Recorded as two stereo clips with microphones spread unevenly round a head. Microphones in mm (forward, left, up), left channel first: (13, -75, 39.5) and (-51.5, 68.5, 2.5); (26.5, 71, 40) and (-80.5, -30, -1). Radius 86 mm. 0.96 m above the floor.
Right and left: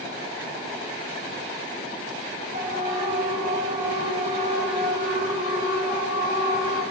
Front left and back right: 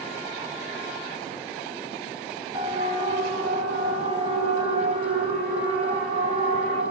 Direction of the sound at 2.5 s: 160° left.